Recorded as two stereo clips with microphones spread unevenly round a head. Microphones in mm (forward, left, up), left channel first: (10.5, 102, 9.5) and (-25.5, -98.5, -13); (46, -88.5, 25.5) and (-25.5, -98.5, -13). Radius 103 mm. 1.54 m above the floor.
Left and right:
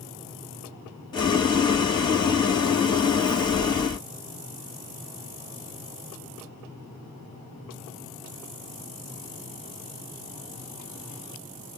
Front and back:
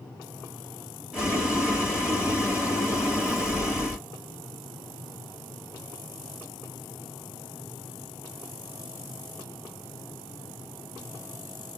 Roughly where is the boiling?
Ahead left.